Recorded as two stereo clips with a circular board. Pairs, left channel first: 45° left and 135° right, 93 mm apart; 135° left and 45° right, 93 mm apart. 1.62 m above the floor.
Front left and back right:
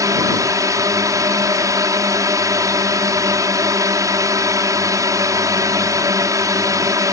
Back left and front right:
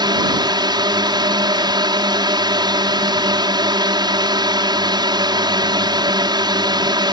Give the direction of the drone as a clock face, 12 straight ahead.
3 o'clock.